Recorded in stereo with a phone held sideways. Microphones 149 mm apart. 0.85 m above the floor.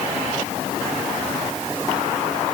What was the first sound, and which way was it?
Only background noise.